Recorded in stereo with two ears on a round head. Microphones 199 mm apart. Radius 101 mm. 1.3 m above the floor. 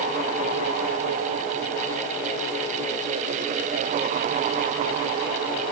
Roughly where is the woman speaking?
I don't hear a woman speaking.